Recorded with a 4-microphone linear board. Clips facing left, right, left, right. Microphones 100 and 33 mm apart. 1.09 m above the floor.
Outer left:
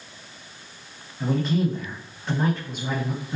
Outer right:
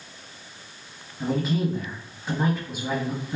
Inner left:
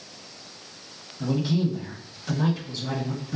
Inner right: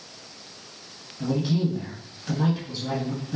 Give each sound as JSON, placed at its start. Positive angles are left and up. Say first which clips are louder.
{"t": 1.2, "sound": "a man speaking", "louder": "outer left 1 dB, even", "side_deg": 5, "distance_m": 1.6}